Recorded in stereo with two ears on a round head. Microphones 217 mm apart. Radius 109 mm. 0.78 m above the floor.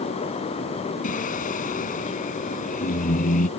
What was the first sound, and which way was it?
Singing, 35° left (ahead or behind).